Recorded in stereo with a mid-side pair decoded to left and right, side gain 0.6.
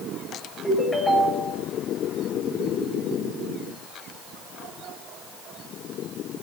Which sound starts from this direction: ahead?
A ringtone, at 0.6 s.